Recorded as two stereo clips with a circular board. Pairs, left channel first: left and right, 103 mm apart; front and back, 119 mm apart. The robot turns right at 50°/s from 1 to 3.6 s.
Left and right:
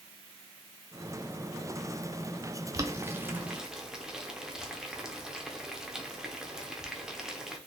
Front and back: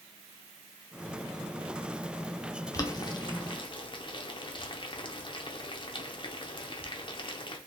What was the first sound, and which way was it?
Boiling, 50° right.